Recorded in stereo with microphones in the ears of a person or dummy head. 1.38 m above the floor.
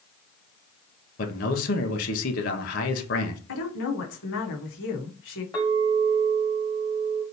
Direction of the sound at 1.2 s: 55° left (ahead or behind).